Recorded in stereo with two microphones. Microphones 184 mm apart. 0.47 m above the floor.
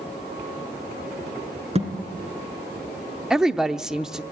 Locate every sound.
1.8 s a thud: 35° right (ahead or behind), 3 m
3.3 s a woman speaking: 5° right (ahead or behind), 0.7 m